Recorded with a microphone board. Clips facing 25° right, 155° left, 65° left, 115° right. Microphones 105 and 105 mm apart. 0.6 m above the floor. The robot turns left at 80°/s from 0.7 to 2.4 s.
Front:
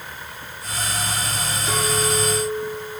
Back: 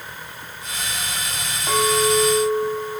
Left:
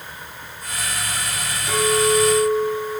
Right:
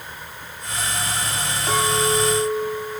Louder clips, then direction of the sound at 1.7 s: Back 5 dB, left 3 dB; 155° right.